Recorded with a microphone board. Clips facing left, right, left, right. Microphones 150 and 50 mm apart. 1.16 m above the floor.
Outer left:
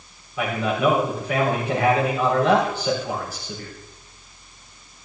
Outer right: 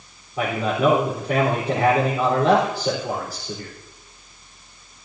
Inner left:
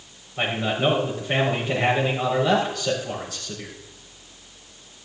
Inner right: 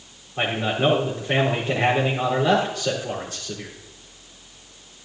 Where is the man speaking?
40° right (ahead or behind), 3.5 m.